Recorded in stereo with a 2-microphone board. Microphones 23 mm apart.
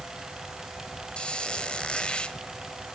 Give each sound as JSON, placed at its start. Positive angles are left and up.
{"t": 1.2, "sound": "a squeak", "side_deg": 55, "distance_m": 1.3}